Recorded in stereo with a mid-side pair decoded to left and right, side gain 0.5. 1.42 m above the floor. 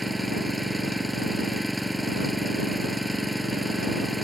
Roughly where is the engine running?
Ahead.